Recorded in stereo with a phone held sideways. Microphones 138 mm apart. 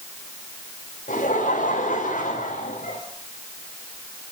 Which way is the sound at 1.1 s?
80° left.